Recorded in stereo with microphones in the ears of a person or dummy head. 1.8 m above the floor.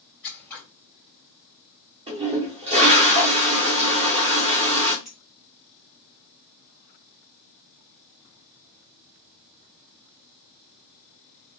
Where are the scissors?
10° left (ahead or behind), 2.5 m.